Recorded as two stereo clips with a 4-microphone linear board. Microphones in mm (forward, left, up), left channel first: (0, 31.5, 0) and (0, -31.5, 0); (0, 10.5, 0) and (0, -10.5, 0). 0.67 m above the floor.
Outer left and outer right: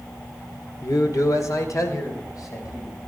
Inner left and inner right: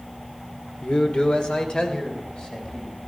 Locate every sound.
0.8 s a man speaking: 65° left (ahead or behind), 1.8 m; by 3.0 s 75° left (ahead or behind), 3.5 m